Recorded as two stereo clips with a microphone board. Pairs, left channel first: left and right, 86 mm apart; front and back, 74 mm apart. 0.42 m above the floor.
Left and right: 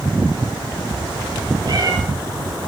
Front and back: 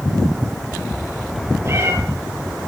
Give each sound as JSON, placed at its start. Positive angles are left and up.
{"t": 1.6, "sound": "a cat meowing", "azimuth_deg": -125, "distance_m": 2.5}